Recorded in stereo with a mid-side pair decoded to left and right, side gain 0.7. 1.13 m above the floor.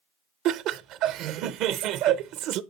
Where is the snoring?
I don't hear snoring.